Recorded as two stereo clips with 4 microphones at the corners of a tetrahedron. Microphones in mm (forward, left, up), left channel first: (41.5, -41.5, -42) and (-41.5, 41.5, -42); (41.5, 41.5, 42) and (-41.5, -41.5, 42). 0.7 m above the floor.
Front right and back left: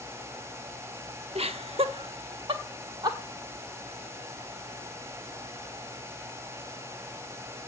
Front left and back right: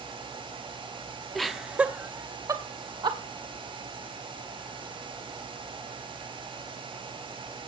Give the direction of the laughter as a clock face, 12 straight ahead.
8 o'clock.